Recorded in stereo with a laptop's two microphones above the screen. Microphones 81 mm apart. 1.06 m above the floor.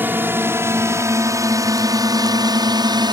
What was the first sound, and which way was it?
A drone, 25° right (ahead or behind).